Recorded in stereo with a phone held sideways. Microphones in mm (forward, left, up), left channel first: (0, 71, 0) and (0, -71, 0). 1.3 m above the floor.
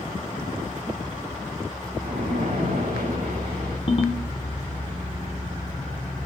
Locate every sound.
2.0 s a splash: 85° right, 8 m
3.9 s a ringtone: 40° left (ahead or behind), 2.5 m